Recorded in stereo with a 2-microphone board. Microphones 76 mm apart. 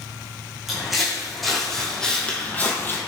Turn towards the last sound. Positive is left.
turn(degrees=30)  # may be behind; listen again after turning